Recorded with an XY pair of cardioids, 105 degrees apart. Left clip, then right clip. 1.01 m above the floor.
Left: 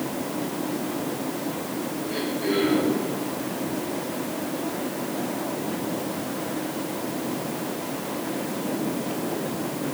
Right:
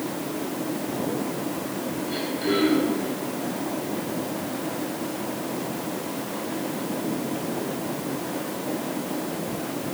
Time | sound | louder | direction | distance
2.1 | throat clearing | right 1 dB | 60° right | 8.5 m